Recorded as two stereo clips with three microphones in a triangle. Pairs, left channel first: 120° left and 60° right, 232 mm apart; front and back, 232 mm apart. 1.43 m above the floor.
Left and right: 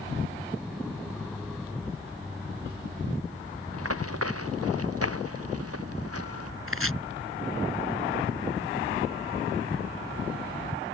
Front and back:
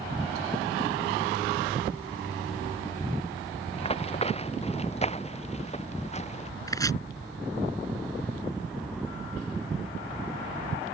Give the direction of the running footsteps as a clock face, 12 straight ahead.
2 o'clock.